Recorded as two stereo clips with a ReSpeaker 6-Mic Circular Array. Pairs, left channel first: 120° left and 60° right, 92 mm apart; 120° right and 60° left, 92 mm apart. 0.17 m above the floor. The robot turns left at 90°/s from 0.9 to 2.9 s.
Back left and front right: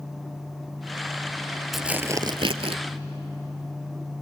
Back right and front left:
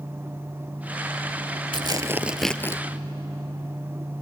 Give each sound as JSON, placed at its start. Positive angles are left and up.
{"t": 1.7, "sound": "tearing paper", "azimuth_deg": 30, "distance_m": 0.7}